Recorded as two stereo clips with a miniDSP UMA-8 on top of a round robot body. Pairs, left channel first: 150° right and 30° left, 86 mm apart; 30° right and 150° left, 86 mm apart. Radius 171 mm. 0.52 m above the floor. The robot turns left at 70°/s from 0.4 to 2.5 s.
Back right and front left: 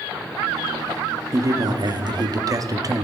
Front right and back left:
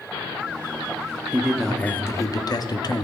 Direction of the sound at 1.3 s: 80° left.